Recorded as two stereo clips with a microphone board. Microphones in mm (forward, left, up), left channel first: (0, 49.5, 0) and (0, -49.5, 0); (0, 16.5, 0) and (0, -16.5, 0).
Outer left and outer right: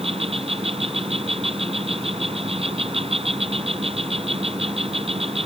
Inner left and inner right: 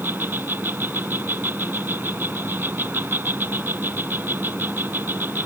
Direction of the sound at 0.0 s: 80° right.